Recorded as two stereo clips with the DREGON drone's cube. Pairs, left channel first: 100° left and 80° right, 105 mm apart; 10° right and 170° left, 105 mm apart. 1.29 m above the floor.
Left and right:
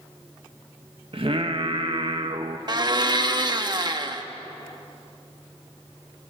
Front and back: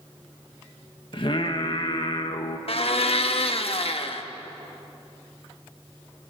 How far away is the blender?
About 1.3 m.